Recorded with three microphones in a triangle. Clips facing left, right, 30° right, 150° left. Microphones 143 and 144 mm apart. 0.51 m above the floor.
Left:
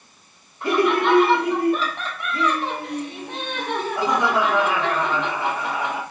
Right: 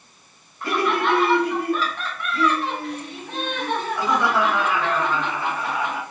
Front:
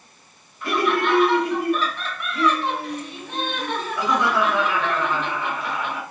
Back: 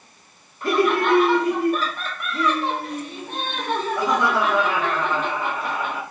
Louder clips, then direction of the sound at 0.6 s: Left 3 dB, back 2 dB; 150° left.